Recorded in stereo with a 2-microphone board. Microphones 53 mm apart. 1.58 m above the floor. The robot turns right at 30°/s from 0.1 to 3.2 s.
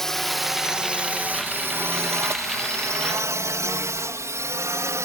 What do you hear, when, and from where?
0.0 s a drone: 10° left (ahead or behind); by 5.1 s 65° right (ahead or behind)